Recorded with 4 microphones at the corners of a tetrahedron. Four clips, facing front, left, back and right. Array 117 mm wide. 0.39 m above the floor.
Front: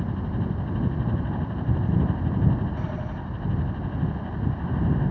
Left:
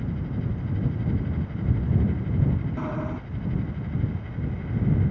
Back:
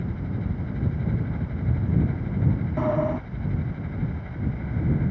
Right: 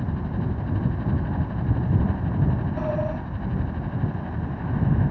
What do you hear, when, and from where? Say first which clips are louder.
0.0 s a helicopter: right 2 dB, front 2 dB; 60° right
2.8 s a sliding door: right 4 dB, back 9 dB; 170° right